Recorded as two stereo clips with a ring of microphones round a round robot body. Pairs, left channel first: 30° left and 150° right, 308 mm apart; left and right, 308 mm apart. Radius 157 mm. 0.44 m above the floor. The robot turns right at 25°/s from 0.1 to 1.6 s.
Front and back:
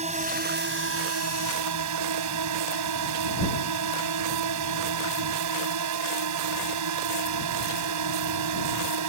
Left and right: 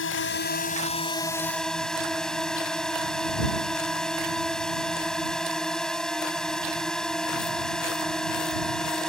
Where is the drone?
140° left; by 9.1 s straight behind.